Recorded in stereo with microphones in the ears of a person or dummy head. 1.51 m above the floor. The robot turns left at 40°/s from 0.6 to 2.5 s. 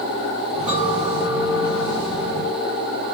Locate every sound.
0.7 s a clink: 135° right, 3 m; by 3.0 s 150° left, 3 m